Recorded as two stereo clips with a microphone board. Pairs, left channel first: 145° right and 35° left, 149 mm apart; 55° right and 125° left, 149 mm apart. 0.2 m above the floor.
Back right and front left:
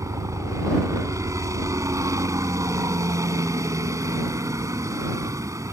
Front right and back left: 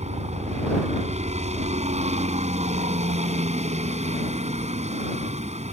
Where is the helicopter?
100° left.